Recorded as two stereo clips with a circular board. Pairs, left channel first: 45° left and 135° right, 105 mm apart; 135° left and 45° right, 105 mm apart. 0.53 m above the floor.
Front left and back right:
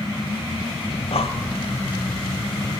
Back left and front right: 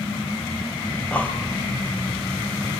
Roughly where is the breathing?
Ahead left.